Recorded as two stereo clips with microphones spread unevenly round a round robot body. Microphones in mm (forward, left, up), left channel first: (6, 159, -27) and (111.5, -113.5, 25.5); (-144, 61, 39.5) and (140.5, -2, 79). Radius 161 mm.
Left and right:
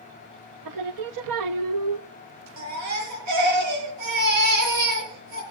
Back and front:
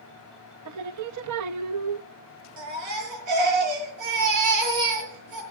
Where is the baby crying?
45° right, 7 m.